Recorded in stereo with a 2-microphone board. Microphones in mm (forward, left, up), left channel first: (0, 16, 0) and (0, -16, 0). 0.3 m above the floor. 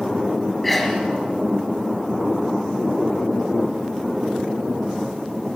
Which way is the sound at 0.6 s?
10° left (ahead or behind).